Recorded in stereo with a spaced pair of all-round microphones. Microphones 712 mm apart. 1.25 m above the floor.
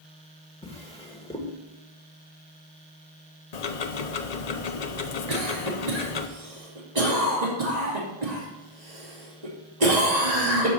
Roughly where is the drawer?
Centre.